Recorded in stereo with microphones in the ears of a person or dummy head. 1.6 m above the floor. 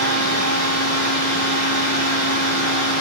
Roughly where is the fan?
Left.